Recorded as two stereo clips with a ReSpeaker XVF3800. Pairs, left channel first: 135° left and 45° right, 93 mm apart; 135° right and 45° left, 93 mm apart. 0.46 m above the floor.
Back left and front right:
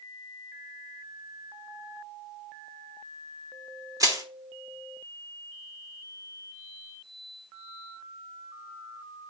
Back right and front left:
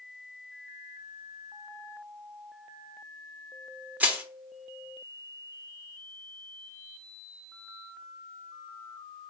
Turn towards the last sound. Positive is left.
turn(degrees=-20)